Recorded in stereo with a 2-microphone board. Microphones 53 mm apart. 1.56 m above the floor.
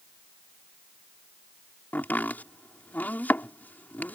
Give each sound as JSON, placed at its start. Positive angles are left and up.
{"t": 1.9, "sound": "chopping", "side_deg": 35}